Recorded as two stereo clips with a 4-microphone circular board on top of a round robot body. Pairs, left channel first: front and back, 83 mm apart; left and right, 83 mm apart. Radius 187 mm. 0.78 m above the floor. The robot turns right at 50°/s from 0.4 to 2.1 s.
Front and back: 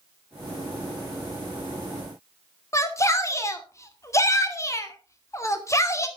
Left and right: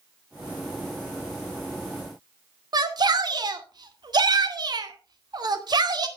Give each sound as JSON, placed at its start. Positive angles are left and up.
{"t": 2.7, "sound": "a shout", "azimuth_deg": -55, "distance_m": 2.5}